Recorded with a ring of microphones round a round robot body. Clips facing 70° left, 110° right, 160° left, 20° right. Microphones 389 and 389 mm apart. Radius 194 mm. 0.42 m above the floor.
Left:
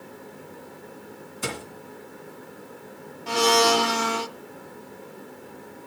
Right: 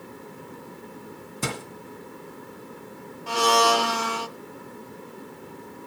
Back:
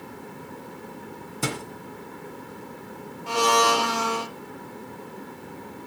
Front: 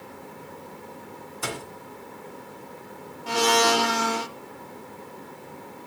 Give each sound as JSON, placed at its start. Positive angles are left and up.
{"t": 1.4, "sound": "a thud", "azimuth_deg": -150, "distance_m": 2.0}
{"t": 3.3, "sound": "a blender", "azimuth_deg": 25, "distance_m": 0.6}